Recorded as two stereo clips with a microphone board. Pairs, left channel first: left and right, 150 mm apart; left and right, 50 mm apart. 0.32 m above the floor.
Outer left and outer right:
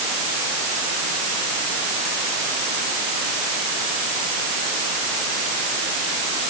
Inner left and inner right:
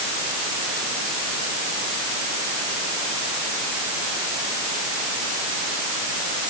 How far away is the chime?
I don't hear a chime.